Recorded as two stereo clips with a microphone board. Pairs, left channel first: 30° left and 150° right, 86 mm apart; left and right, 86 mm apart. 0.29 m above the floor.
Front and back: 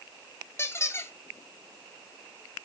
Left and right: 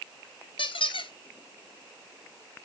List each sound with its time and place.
0.6 s a squeak: 90° left, 1.1 m